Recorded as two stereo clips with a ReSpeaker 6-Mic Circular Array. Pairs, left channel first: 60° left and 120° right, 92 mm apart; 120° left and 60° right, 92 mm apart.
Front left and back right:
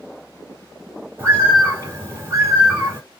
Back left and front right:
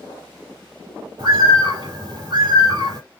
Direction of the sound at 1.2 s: 65° right.